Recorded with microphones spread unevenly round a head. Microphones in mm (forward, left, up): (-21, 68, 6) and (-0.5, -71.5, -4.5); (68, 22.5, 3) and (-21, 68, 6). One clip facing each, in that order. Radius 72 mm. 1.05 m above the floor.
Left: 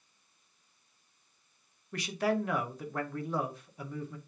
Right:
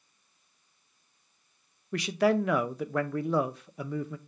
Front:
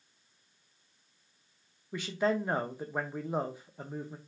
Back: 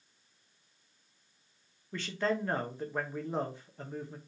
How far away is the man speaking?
About 0.6 m.